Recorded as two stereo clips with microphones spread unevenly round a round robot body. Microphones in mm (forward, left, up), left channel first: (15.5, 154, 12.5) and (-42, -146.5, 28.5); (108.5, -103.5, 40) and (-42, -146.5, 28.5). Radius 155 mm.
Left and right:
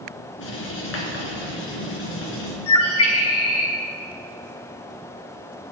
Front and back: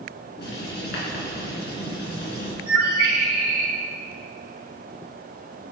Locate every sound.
0.4 s writing: 25° left, 3.5 m
2.7 s a bird: 120° left, 2.5 m